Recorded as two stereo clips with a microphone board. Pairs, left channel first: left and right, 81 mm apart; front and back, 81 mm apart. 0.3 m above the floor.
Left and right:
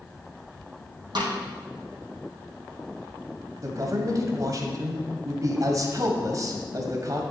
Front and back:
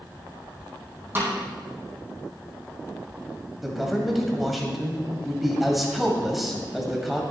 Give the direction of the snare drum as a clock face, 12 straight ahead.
4 o'clock.